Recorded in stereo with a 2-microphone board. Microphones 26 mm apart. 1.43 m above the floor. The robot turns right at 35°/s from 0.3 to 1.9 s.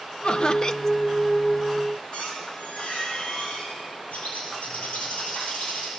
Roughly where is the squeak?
Left.